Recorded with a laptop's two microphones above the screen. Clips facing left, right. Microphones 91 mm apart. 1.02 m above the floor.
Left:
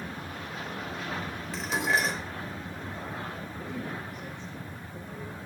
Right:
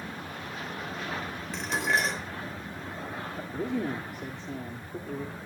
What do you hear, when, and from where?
1.5 s dishes clattering: 5° left (ahead or behind), 3 m
3.4 s a man speaking: 85° right, 2 m